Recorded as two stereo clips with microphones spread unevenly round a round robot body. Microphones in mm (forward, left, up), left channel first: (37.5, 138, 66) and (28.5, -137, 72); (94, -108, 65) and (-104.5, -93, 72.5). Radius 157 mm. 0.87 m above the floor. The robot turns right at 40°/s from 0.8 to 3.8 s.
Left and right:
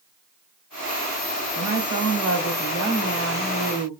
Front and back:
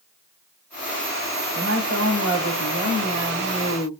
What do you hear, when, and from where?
1.6 s a woman speaking: 140° left, 3 m; by 3.9 s 130° right, 3 m